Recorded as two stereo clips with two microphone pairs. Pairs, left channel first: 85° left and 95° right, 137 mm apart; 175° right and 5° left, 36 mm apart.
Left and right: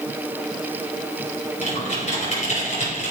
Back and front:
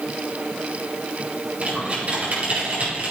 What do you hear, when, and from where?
1.6 s typing on a keyboard: 50° left, 5 m